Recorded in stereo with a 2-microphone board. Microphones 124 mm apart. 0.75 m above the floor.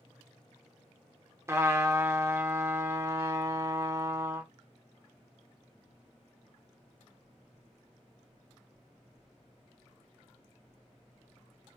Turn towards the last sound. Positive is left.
turn(degrees=-20)  # may be behind; listen again after turning